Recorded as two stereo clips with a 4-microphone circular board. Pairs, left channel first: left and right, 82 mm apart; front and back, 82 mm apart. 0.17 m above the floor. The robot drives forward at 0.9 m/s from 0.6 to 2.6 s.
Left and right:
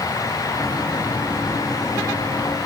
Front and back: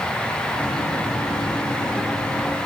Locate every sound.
Only background noise.